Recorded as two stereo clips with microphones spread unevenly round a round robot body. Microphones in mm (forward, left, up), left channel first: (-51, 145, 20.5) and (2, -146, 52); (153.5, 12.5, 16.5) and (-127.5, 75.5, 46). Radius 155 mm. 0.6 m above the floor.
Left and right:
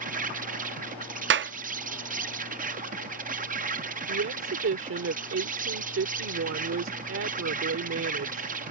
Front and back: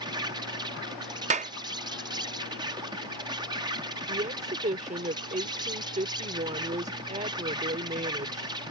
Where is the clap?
125° right.